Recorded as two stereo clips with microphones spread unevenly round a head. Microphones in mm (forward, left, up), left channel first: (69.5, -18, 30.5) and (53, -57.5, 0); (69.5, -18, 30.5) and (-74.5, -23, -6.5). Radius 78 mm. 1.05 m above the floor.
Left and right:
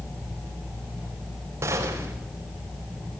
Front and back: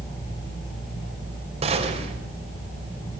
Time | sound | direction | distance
1.6 | a gunshot | 130° right | 4.5 m